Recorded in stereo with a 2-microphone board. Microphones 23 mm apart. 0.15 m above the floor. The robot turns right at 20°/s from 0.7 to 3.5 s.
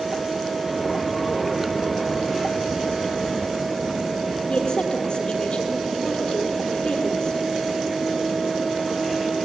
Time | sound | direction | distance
4.5 | a woman speaking | 40° left (ahead or behind) | 4.5 m